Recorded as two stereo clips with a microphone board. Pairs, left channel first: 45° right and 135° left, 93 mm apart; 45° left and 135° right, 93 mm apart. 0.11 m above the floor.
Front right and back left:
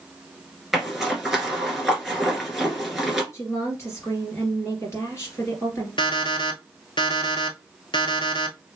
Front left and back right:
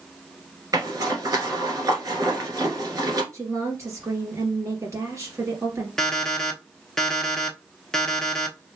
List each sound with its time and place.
0.7 s a zipper: 140° right, 1.4 m
3.3 s a woman speaking: 95° right, 2.5 m
6.0 s an alarm clock: 40° right, 0.9 m